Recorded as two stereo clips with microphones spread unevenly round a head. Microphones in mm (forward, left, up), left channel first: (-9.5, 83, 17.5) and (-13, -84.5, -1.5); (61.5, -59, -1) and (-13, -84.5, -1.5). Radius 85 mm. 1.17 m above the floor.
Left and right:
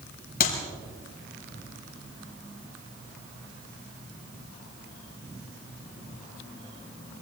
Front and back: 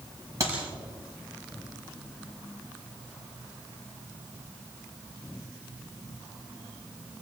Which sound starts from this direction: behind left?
A clap, at 0.4 s.